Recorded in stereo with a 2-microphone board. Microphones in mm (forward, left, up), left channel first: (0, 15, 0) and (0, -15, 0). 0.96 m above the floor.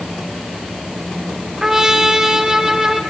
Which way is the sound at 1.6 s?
15° right (ahead or behind).